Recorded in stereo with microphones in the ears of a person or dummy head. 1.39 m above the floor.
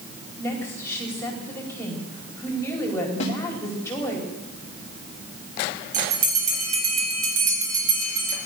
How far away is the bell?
About 4.5 m.